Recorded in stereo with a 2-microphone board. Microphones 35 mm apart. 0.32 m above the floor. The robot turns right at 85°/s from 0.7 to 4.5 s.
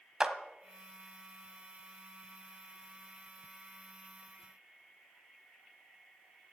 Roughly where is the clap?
Centre.